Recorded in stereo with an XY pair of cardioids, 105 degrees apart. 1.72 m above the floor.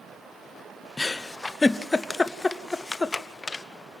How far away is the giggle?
About 0.7 m.